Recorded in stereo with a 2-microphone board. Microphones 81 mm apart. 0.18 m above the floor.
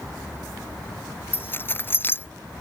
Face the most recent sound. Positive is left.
turn(degrees=30)  # may be behind; listen again after turning